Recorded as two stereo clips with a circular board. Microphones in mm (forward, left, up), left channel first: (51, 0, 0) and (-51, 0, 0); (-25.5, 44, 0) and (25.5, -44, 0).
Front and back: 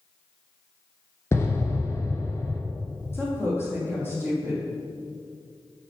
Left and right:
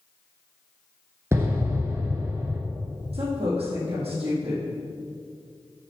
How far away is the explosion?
About 1.3 m.